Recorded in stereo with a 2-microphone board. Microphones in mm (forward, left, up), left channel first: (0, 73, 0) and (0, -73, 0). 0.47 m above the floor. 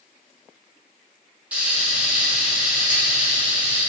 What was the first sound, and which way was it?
Frying, 10° right (ahead or behind).